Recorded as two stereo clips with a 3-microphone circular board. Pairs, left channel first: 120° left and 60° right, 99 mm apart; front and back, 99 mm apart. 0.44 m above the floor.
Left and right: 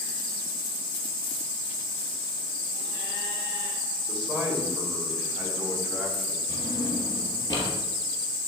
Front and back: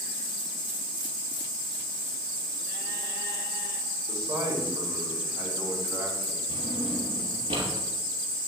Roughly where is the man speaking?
Behind right.